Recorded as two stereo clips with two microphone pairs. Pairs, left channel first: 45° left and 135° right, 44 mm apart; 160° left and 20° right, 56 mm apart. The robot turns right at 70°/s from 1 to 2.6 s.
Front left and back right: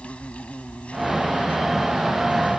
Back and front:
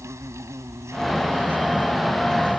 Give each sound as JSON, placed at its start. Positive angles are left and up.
{"t": 0.0, "sound": "an insect", "azimuth_deg": -10}